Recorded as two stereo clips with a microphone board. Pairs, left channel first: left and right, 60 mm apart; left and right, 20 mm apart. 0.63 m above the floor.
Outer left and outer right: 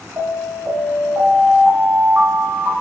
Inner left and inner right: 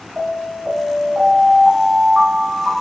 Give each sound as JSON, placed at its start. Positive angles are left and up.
{"t": 0.2, "sound": "an alarm", "side_deg": -55, "distance_m": 1.0}